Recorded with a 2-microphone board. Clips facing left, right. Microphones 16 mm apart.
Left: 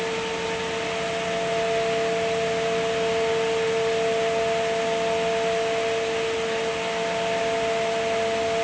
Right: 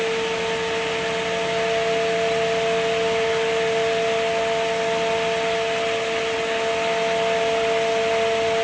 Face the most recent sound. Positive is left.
No sound to turn to.